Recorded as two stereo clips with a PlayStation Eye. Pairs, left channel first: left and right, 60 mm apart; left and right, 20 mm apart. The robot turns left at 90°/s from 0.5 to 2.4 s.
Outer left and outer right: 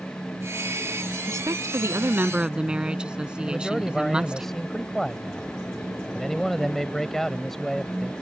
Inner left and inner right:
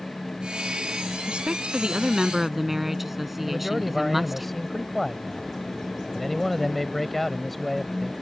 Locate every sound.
1.3 s a woman speaking: 60° right; by 4.5 s 165° right
3.5 s a man speaking: 5° left (ahead or behind)